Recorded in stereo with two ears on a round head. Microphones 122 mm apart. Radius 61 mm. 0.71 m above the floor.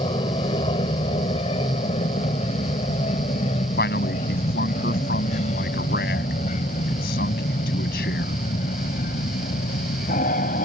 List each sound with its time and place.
0.0 s an aircraft: 35° left (ahead or behind); by 10.7 s 55° left (ahead or behind)
3.8 s a man speaking: 70° left (ahead or behind)